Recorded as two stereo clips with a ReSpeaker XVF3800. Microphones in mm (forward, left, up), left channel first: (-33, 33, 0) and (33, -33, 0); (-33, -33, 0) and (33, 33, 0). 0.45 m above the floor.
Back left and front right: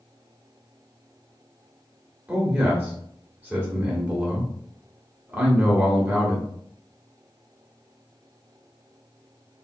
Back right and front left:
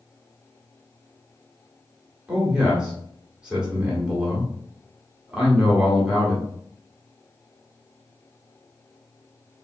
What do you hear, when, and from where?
2.3 s a man speaking: 15° right, 1.2 m